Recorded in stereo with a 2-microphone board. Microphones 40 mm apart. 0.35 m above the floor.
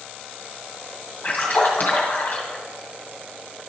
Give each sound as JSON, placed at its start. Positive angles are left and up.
{"t": 1.2, "sound": "a splash", "side_deg": 40, "distance_m": 2.5}